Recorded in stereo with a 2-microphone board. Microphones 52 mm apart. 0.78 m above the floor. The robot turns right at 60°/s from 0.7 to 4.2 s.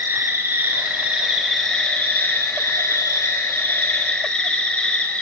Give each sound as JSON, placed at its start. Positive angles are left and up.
{"t": 0.0, "sound": "an insect", "azimuth_deg": -50, "distance_m": 5.0}